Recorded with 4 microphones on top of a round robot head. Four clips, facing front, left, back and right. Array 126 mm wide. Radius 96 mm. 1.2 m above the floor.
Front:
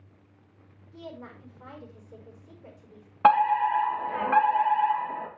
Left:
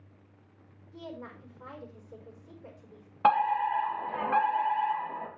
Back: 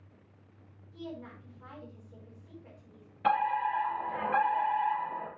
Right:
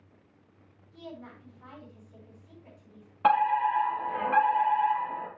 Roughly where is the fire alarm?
Ahead.